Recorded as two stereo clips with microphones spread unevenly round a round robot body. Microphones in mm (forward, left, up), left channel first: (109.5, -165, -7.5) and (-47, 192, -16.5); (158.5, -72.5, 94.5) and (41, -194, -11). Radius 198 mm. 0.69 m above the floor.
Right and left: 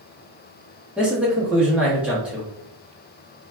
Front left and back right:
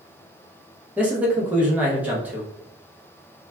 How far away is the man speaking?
About 0.6 m.